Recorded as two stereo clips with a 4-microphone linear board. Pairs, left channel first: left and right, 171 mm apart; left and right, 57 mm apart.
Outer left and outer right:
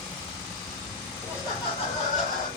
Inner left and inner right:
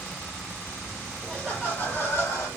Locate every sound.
1.2 s laughter: 15° left (ahead or behind), 1.6 m; by 2.5 s 50° left (ahead or behind), 2.5 m